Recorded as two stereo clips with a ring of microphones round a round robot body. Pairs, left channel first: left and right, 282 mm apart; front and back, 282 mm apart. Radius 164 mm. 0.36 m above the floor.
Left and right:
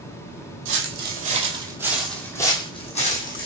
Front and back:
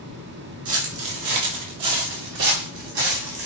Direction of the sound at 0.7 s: 135° right.